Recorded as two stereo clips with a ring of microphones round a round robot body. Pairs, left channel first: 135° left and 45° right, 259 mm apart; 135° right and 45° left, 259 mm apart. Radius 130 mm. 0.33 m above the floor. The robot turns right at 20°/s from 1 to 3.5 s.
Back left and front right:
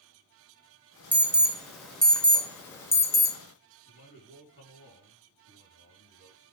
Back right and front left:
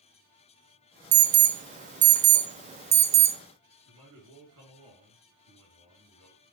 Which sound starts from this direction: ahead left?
An alarm, at 1.1 s.